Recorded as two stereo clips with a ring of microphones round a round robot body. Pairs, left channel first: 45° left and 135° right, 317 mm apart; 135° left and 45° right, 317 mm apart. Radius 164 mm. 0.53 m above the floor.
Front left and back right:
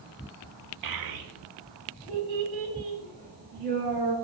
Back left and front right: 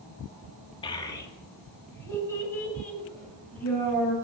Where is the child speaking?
150° right, 1.0 m; by 4.1 s 140° right, 5.5 m.